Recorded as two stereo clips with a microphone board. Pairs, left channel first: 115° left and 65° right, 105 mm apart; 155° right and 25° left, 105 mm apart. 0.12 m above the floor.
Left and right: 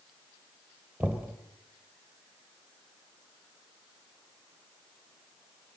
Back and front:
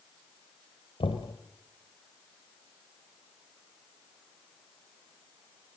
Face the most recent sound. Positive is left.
turn(degrees=-145)